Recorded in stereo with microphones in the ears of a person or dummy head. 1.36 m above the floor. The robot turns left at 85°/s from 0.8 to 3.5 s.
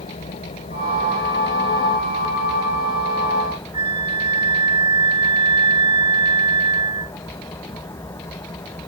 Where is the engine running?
35° left; by 8.9 s 165° left.